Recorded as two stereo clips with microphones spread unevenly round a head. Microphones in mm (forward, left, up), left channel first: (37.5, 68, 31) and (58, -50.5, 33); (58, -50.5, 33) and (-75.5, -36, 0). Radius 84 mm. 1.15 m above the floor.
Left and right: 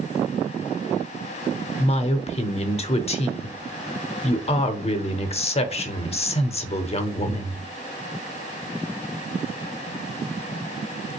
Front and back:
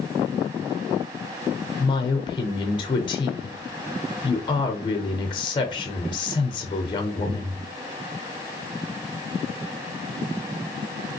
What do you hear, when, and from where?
1.8 s a woman speaking: 60° left, 0.5 m